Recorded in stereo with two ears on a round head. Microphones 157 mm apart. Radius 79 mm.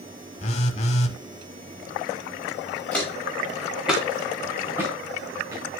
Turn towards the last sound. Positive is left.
turn(degrees=-20)  # may be behind; listen again after turning